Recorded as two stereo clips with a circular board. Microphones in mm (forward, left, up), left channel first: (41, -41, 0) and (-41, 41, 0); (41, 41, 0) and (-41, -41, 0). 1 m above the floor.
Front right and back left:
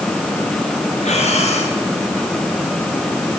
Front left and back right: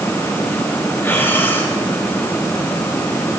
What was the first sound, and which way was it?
Breathing, 25° right.